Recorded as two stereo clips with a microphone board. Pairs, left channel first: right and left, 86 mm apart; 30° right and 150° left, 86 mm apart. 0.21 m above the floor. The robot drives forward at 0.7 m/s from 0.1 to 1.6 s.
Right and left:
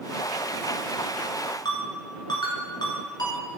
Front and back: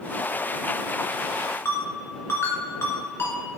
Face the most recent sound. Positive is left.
turn(degrees=-85)